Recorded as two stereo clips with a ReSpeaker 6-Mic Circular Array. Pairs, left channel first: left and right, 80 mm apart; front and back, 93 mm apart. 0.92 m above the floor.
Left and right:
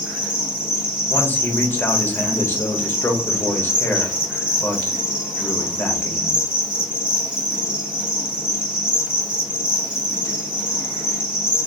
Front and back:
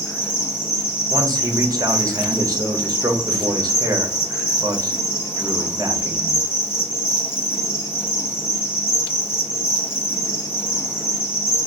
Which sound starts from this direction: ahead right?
An insect, at 0.0 s.